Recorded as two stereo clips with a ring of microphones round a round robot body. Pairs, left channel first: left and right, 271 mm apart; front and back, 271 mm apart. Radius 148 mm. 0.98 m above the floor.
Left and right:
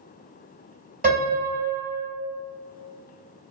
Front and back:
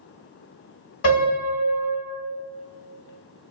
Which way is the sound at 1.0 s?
30° right.